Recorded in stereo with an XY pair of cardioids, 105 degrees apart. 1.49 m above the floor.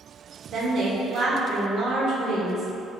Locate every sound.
0.5 s a woman speaking: 65° right, 1.2 m